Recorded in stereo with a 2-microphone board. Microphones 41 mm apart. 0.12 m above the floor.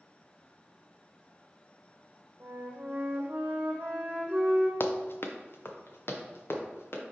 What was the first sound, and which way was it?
A flute, 45° right (ahead or behind).